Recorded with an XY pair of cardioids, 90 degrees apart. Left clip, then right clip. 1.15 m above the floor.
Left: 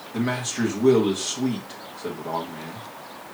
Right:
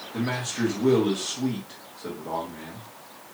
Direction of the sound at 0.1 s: 20° left.